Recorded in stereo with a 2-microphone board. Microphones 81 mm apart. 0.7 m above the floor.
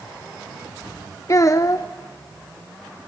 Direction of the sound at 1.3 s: 40° left (ahead or behind).